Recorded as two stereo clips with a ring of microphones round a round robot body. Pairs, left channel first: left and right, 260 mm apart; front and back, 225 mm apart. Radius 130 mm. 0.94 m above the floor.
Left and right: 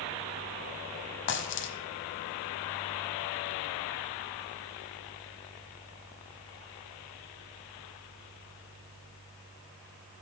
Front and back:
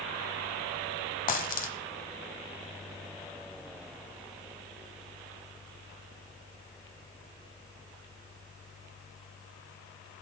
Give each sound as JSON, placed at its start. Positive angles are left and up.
{"t": 1.3, "sound": "a dropped coin", "azimuth_deg": 50, "distance_m": 1.3}